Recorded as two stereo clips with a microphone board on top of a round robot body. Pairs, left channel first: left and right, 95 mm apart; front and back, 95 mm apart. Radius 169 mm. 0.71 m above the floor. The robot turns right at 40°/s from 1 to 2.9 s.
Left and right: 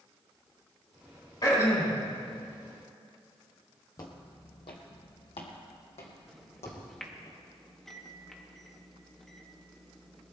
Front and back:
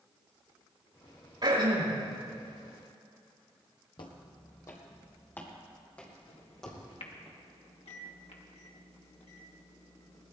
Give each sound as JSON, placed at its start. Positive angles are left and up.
{"t": 1.4, "sound": "throat clearing", "azimuth_deg": 135, "distance_m": 5.5}
{"t": 4.0, "sound": "footsteps", "azimuth_deg": 35, "distance_m": 1.3}
{"t": 6.3, "sound": "a microwave", "azimuth_deg": 5, "distance_m": 1.9}